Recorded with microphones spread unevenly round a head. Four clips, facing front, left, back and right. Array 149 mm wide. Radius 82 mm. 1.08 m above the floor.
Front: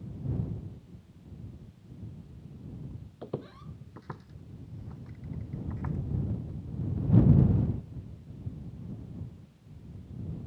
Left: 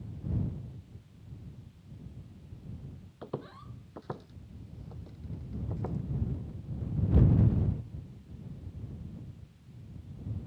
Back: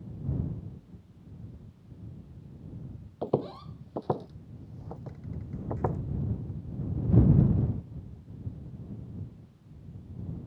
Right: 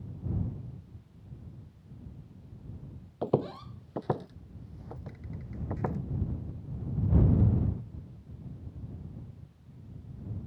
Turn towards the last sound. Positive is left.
turn(degrees=-160)